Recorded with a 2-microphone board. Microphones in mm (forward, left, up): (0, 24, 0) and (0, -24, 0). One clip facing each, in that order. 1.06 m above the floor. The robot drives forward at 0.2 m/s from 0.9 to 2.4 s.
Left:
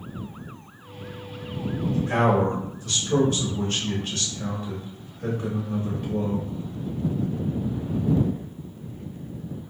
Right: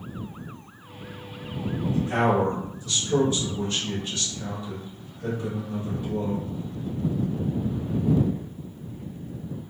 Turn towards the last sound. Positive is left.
turn(degrees=55)  # may be behind; listen again after turning